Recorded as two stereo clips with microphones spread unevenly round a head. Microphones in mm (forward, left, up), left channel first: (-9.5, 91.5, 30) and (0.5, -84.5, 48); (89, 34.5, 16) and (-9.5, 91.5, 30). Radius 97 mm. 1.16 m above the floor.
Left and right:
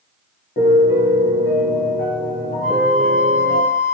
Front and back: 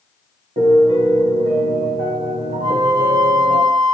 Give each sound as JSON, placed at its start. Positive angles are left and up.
{"t": 0.6, "sound": "a piano", "azimuth_deg": 140, "distance_m": 2.5}
{"t": 2.6, "sound": "a flute", "azimuth_deg": 135, "distance_m": 5.5}